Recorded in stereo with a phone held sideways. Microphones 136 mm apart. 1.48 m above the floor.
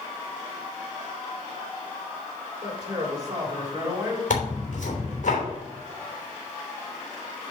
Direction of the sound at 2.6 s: 35° right (ahead or behind).